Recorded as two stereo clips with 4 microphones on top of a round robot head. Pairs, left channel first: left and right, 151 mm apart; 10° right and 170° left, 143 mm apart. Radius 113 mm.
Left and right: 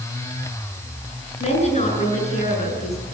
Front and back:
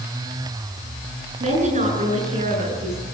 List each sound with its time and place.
1.4 s a woman speaking: 135° left, 8 m